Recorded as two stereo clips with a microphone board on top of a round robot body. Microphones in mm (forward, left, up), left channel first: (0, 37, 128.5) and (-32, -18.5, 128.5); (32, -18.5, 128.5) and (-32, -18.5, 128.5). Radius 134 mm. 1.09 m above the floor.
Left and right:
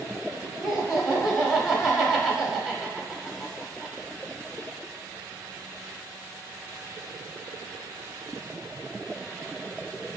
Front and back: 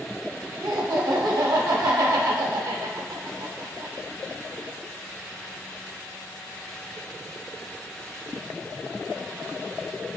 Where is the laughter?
155° left, 0.7 m.